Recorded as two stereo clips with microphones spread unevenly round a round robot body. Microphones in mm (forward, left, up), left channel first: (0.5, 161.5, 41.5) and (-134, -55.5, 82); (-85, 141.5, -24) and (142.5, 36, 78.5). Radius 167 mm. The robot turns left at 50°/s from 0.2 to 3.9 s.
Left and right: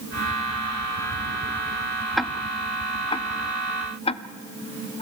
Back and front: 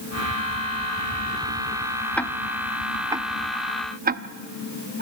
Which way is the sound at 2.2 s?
135° left.